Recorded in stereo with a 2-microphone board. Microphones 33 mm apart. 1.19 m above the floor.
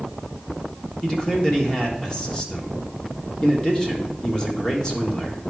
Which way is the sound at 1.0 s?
20° left (ahead or behind).